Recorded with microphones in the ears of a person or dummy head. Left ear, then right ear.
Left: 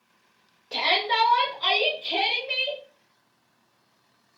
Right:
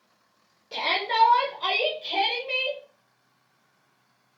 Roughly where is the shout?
Centre.